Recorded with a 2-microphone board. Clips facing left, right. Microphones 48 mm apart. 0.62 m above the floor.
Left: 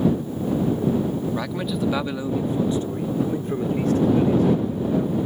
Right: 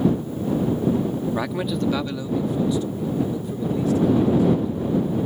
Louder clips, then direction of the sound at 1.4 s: Right 1 dB; 15° right (ahead or behind).